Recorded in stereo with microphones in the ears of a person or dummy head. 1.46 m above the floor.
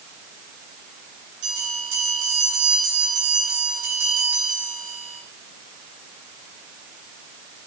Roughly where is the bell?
Right.